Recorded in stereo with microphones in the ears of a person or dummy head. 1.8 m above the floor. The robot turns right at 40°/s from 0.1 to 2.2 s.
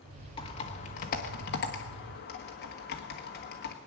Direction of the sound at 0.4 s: 25° left (ahead or behind).